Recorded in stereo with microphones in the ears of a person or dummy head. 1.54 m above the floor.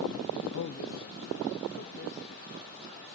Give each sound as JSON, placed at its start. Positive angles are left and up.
{"t": 0.5, "sound": "a man speaking", "side_deg": 85, "distance_m": 1.2}